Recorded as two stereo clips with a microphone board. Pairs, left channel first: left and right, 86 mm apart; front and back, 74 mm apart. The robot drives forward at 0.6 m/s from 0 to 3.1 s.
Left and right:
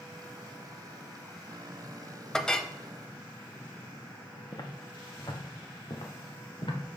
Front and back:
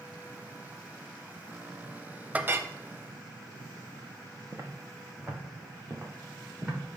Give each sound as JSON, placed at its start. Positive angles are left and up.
{"t": 2.3, "sound": "a clink", "azimuth_deg": 160, "distance_m": 0.5}
{"t": 4.5, "sound": "footsteps", "azimuth_deg": 130, "distance_m": 1.6}